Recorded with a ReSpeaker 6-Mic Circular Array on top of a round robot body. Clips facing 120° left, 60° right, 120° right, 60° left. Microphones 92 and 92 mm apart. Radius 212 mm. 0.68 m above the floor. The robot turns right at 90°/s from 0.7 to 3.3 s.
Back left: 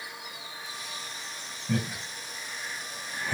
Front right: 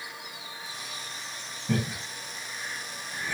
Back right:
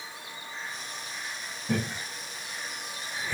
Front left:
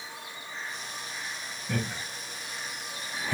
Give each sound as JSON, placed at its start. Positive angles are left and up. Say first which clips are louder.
{"t": 1.7, "sound": "laughter", "louder": "front right 1 dB, back right 3 dB", "azimuth_deg": -60, "distance_m": 1.7}